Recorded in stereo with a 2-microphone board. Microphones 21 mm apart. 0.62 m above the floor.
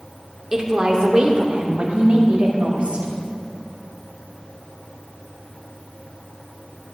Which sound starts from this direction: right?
A woman speaking, at 0.5 s.